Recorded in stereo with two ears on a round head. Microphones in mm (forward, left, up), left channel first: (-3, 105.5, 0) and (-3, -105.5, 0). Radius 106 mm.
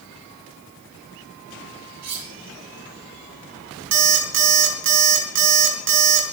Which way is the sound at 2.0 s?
75° right (ahead or behind).